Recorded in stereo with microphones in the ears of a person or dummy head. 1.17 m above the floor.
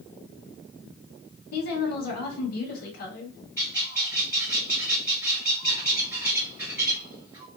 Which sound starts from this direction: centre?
A bird, at 3.6 s.